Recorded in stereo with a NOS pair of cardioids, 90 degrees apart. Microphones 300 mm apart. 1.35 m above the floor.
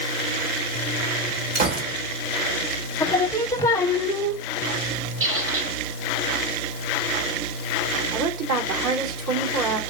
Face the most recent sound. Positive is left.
turn(degrees=-65)